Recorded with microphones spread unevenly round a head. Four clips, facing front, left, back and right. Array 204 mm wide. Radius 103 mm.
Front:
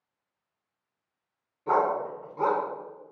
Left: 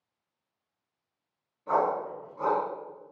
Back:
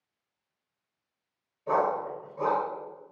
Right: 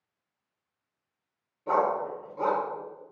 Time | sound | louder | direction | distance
1.7 | a dog barking | right 1 dB, front 2 dB | 20° right | 4 m